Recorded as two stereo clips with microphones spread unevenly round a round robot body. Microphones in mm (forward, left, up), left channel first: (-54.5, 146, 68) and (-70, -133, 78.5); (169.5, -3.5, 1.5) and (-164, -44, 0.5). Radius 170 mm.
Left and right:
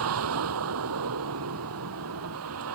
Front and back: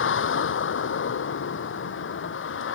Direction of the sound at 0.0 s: 50° right.